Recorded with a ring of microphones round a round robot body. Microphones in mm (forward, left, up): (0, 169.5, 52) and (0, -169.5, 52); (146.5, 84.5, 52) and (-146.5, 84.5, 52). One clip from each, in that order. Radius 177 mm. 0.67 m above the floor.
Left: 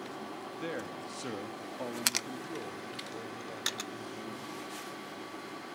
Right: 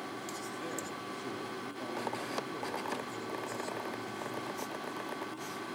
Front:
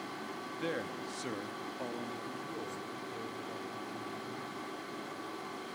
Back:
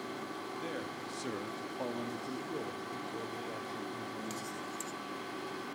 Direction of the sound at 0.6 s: 30° left.